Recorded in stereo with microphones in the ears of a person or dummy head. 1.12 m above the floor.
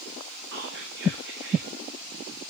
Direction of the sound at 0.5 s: 65° right (ahead or behind).